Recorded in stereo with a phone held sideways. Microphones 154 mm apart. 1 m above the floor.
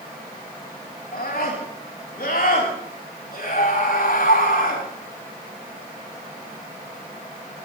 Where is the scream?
80° left, 6 m; by 4.8 s 70° left (ahead or behind), 8 m.